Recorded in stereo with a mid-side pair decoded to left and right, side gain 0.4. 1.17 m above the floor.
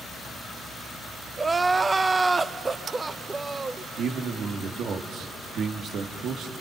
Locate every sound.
1.4 s crying: 25° right, 0.8 m
4.0 s a man speaking: 70° right, 1.8 m